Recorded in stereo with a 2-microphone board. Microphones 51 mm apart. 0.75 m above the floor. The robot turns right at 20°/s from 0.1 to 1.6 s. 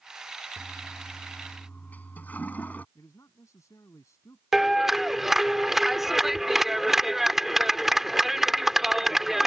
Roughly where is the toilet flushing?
Centre.